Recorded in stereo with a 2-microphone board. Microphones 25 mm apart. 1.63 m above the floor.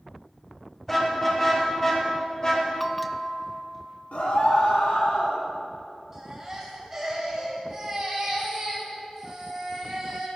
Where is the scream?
70° left (ahead or behind), 3.5 m.